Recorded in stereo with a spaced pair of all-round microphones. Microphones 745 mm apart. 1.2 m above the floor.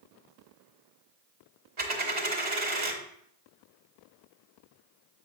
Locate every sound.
1.8 s a dropped coin: 65° right (ahead or behind), 1.5 m